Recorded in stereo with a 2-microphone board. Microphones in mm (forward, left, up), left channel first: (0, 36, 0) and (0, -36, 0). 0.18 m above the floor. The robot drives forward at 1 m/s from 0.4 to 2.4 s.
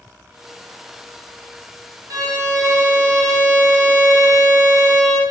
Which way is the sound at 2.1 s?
60° right (ahead or behind).